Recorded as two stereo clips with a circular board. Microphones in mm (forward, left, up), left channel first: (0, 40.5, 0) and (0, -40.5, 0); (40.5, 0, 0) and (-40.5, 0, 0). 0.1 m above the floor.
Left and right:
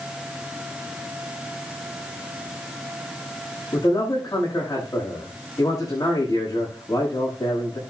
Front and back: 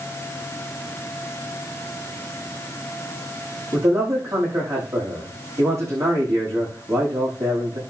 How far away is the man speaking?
About 8.5 m.